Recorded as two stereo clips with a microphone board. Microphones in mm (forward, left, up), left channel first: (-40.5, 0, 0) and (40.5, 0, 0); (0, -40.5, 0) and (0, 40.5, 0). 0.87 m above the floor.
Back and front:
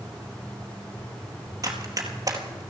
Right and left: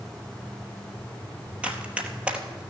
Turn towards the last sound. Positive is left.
turn(degrees=20)